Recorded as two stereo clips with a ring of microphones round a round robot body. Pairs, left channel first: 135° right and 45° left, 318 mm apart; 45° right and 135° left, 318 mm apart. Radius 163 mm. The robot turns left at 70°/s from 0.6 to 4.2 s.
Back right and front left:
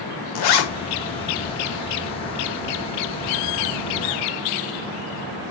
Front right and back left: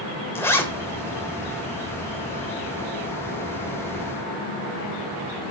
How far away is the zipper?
About 1.5 m.